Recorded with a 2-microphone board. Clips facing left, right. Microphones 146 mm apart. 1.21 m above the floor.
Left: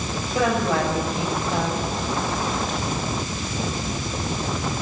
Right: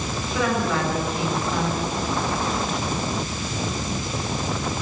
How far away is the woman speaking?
About 6.5 m.